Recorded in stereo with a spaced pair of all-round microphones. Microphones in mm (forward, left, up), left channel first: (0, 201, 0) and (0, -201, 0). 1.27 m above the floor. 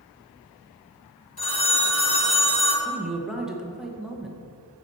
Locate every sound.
1.4 s a phone ringing: 60° left (ahead or behind), 1.7 m
2.9 s a man speaking: centre (ahead or behind), 0.9 m